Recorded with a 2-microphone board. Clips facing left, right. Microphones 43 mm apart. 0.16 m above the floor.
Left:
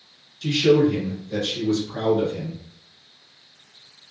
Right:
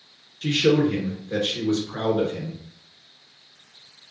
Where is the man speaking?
35° right (ahead or behind), 1.8 m.